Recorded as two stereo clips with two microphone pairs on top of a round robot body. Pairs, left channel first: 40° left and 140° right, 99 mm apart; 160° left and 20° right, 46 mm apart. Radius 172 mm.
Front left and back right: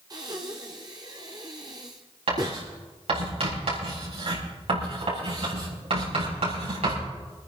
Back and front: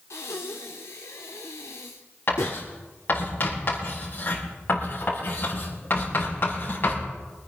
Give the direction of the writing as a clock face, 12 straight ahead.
5 o'clock.